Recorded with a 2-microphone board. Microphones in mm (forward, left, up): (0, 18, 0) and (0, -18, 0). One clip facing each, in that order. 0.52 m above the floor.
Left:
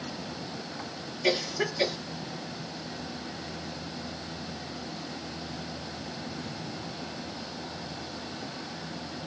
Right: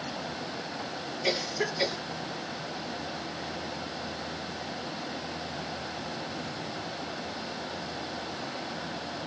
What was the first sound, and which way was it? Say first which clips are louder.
A cough: left 2 dB; 30° left (ahead or behind).